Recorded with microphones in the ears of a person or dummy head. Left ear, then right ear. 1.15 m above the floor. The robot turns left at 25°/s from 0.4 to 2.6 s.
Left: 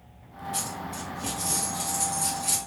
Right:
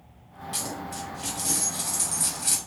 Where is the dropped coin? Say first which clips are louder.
Right 1 dB; 35° right, 2.5 m; by 2.6 s 85° right, 2.5 m.